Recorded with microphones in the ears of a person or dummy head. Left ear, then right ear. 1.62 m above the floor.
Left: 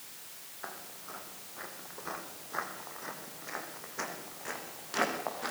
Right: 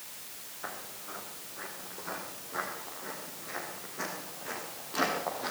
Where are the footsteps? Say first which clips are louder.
Right 3 dB; 25° left (ahead or behind), 5 m; by 5.5 s 75° left (ahead or behind), 6.5 m.